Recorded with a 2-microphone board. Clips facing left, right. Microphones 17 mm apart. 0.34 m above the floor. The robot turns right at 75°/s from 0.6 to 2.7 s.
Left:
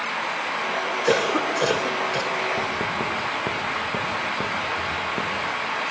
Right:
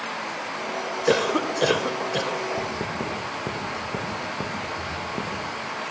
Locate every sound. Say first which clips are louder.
1.1 s a cough: even; 5° left (ahead or behind), 1.1 m; by 2.4 s 25° right (ahead or behind), 1.1 m
2.6 s writing: left 4 dB; 50° left (ahead or behind), 5.5 m; by 5.5 s 40° left (ahead or behind), 5.5 m